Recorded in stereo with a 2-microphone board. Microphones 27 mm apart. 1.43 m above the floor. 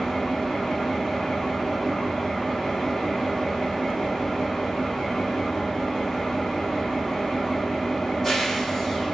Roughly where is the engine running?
Centre.